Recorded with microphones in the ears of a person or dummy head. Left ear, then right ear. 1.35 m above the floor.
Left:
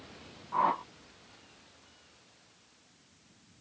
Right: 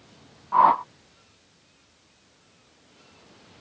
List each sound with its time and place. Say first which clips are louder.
0.5 s a whoosh: right 11 dB; 35° right (ahead or behind)